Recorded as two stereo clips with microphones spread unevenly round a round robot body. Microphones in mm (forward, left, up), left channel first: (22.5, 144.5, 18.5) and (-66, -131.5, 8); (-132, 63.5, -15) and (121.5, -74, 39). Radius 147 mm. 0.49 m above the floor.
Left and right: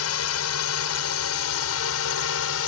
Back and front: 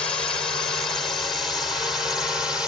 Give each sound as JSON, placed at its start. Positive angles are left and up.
{"t": 0.0, "sound": "a drone", "azimuth_deg": 75}